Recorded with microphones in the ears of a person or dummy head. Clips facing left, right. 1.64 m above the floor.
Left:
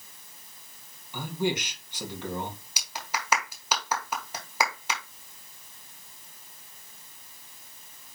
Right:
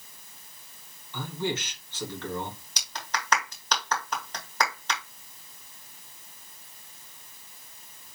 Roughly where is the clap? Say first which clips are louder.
Even; centre.